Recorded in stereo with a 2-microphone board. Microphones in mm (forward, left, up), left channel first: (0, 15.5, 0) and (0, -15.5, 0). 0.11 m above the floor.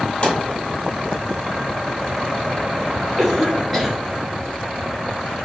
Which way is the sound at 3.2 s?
5° right (ahead or behind).